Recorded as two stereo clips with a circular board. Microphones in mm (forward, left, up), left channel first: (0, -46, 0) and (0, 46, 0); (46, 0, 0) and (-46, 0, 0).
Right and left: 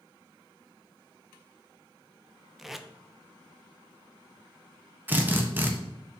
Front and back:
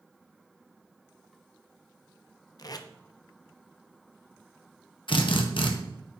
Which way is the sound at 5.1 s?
20° left.